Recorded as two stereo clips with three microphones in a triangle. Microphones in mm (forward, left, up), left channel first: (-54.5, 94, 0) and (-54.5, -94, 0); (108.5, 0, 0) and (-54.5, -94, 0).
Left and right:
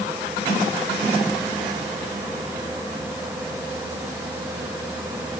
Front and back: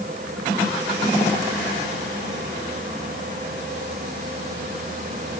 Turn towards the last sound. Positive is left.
No sound to turn to.